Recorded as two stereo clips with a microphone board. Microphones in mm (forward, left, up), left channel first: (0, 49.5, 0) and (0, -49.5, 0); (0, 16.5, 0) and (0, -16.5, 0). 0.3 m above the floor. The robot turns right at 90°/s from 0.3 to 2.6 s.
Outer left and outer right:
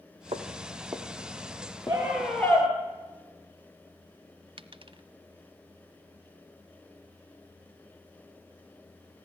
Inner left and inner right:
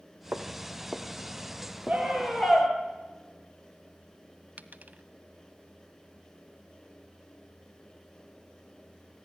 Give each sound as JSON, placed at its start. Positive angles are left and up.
{"t": 0.3, "sound": "footsteps", "side_deg": -75, "distance_m": 2.5}
{"t": 1.9, "sound": "a scream", "azimuth_deg": -35, "distance_m": 6.0}
{"t": 4.6, "sound": "a dropped coin", "side_deg": -60, "distance_m": 0.7}